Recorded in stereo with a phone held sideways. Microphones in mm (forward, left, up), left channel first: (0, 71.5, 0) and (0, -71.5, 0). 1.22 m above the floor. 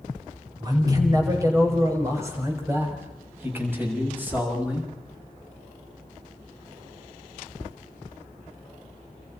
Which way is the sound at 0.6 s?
25° right (ahead or behind).